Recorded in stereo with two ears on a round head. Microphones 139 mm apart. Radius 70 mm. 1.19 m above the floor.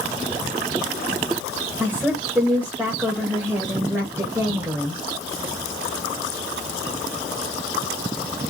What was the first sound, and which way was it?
A woman speaking, 15° right (ahead or behind).